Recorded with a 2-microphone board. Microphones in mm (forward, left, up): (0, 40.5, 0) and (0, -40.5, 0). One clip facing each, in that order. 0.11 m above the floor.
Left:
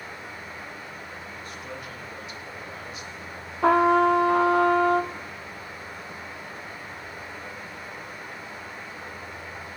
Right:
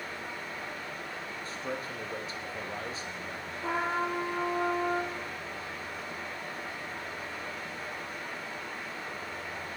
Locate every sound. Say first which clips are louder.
0.0 s running water: even; 10° left (ahead or behind), 9 m
1.4 s a man speaking: right 4 dB; 35° right (ahead or behind), 4.5 m
3.6 s a trumpet: left 13 dB; 70° left (ahead or behind), 1.1 m